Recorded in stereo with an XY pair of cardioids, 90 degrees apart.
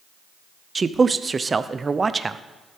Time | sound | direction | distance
0.8 | a man speaking | 30° right | 0.7 m